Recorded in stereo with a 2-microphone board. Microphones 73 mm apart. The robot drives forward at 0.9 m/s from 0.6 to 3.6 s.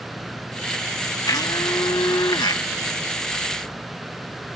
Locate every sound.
1.3 s a blender: 60° left (ahead or behind); by 2.6 s 85° left